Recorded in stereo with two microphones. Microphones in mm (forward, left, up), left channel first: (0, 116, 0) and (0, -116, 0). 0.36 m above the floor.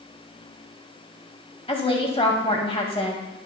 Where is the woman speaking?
25° left (ahead or behind), 1.6 m.